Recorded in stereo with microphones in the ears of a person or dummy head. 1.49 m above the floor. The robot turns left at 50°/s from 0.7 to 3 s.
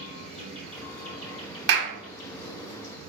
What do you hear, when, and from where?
0.0 s an insect: 130° left, 2.0 m; by 3.1 s 15° left, 2.0 m
1.7 s a clap: 65° right (ahead or behind), 0.6 m; by 1.9 s 75° right (ahead or behind), 0.6 m